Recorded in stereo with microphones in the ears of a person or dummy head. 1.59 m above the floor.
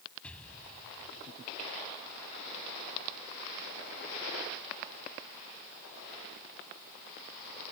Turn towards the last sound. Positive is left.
turn(degrees=5)  # may be behind; listen again after turning